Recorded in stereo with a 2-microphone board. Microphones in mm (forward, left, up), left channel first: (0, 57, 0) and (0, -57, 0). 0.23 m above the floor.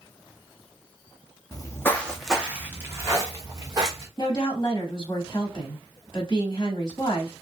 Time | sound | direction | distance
1.5 | footsteps | 40° left (ahead or behind) | 0.5 m
4.2 | a woman speaking | 30° left (ahead or behind) | 1.0 m